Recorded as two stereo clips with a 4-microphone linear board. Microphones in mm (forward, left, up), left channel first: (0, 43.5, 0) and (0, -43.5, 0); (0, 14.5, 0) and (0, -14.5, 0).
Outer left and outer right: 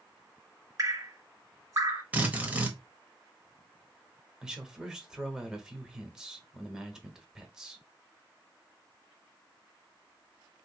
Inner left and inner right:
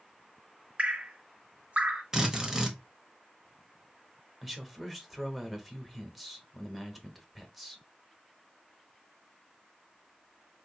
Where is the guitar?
I don't hear a guitar.